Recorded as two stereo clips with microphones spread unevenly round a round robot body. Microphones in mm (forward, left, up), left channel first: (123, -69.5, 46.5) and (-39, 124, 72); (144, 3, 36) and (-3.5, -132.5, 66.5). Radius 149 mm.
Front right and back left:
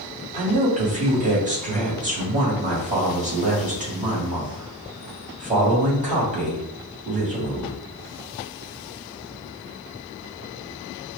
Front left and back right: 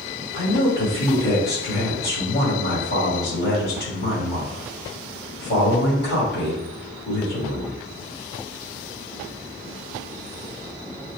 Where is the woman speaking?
70° left, 2 m.